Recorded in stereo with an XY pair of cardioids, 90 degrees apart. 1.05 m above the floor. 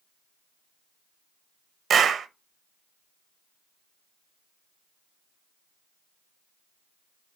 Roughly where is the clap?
Ahead right.